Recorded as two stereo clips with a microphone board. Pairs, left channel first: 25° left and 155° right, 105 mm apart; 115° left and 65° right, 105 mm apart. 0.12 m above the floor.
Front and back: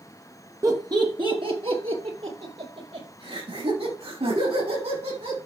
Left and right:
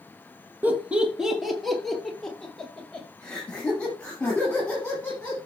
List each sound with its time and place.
0.6 s laughter: 125° right, 1.6 m; by 5.4 s 170° right, 7.5 m